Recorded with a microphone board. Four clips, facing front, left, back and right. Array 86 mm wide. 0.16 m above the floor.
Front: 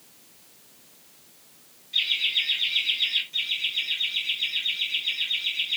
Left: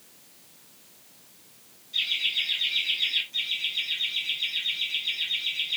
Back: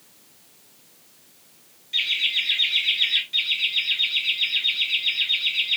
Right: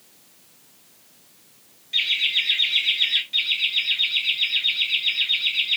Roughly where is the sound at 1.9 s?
Behind right.